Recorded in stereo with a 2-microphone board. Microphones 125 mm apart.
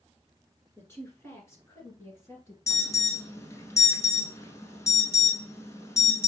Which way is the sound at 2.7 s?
25° left (ahead or behind).